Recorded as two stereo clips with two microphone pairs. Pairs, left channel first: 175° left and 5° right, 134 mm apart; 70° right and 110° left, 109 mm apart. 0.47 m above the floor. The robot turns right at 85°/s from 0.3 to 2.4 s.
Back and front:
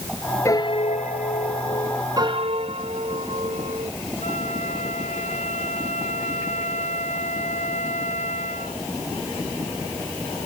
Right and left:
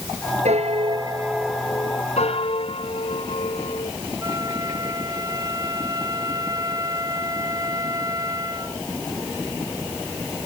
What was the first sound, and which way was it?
A piano, 110° left.